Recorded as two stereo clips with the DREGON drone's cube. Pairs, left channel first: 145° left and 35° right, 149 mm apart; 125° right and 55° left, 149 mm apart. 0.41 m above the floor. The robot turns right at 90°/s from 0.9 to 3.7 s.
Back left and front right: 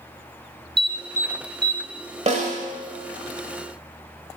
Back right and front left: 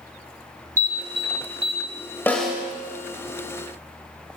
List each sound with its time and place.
0.8 s an alarm: straight ahead, 1.0 m; by 1.8 s 80° left, 1.0 m
2.3 s a snare drum: 50° right, 1.0 m; by 2.6 s 15° right, 1.0 m